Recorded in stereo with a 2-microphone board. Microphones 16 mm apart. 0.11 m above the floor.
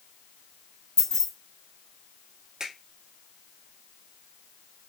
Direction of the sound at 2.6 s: 50° right (ahead or behind).